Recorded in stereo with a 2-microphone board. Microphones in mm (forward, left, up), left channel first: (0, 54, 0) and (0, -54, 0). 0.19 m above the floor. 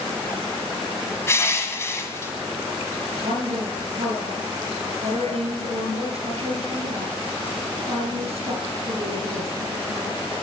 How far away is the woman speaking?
About 2.5 m.